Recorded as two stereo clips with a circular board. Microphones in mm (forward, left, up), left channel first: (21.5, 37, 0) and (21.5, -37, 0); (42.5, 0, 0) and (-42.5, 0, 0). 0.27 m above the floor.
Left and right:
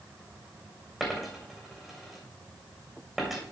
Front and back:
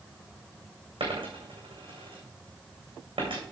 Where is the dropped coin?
Straight behind, 3 m.